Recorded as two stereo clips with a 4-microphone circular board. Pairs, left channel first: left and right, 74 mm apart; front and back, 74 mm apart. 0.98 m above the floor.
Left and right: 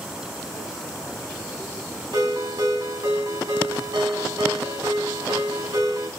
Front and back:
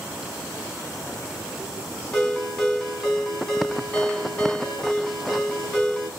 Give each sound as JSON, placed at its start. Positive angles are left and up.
{"t": 2.1, "sound": "a ringtone", "azimuth_deg": -85, "distance_m": 2.0}